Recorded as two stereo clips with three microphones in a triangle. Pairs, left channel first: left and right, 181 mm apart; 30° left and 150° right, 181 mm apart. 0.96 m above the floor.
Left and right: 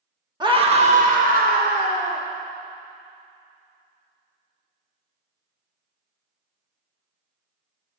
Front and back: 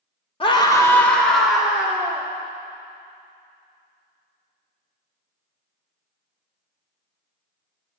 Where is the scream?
30° right, 1.3 m; by 2.2 s 70° right, 2.5 m.